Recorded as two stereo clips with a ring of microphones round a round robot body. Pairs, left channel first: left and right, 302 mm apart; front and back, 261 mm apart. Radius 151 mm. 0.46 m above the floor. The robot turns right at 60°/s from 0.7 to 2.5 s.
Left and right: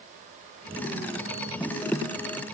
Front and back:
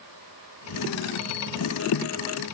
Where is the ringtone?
I don't hear a ringtone.